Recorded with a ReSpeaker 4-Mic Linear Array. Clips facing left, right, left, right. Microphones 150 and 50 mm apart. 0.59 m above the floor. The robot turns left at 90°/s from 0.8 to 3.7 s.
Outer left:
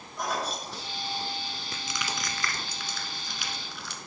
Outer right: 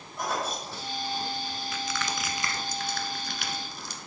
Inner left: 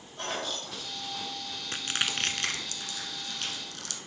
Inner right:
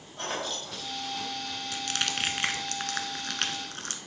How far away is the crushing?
About 1.0 m.